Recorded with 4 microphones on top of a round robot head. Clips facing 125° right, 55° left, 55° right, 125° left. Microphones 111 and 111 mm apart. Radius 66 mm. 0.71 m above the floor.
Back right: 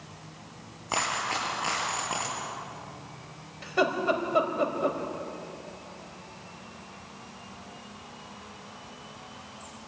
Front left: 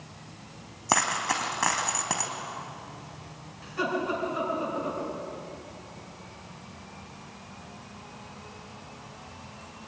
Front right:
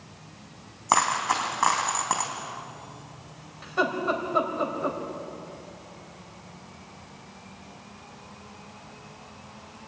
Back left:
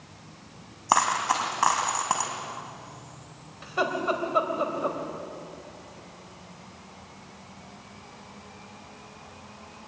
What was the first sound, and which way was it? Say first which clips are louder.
A dropped coin: front left 3 dB, even; 45° left.